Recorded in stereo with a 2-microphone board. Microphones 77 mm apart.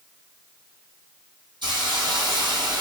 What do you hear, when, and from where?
1.6 s a hiss: 80° right, 3 m